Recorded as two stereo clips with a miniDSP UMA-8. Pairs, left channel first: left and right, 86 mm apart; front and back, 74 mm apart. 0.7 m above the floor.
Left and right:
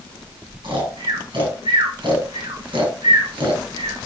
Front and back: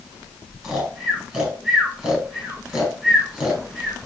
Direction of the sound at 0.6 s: 90° right.